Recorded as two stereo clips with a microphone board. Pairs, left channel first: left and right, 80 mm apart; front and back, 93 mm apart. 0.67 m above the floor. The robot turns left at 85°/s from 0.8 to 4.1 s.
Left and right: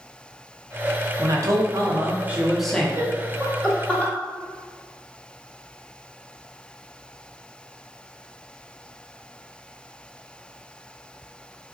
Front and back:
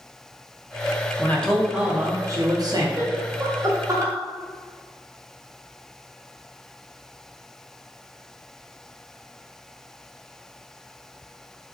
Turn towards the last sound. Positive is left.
turn(degrees=140)